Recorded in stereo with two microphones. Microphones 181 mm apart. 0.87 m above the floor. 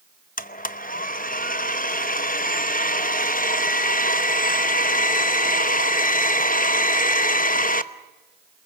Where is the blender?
50° left (ahead or behind), 0.8 m.